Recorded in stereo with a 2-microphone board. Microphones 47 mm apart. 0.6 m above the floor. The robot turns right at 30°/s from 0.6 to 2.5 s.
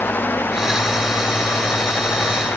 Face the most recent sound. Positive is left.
No sound to turn to.